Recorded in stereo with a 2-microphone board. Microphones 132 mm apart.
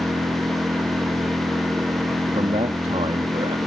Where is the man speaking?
55° right (ahead or behind).